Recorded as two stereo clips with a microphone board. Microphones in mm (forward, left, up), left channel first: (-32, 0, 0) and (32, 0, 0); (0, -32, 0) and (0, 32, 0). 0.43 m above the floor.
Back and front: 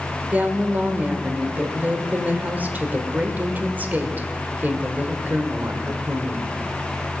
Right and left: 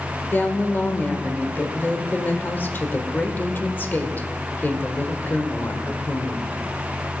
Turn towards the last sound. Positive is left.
turn(degrees=-45)